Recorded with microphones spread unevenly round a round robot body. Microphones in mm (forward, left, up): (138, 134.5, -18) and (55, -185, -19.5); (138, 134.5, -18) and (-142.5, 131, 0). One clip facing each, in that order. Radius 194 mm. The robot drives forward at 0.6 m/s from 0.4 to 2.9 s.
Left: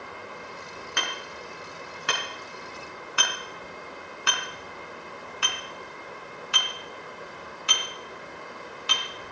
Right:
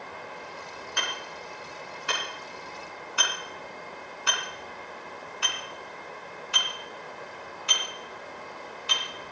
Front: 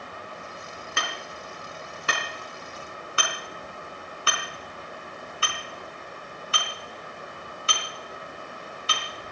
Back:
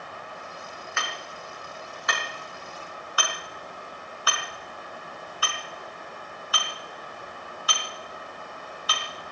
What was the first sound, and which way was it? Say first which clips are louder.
Hammering: left 2 dB, front 3 dB; 50° left.